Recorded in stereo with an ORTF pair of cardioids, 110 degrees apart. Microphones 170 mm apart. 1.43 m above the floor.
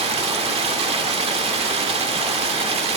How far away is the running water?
About 1.5 m.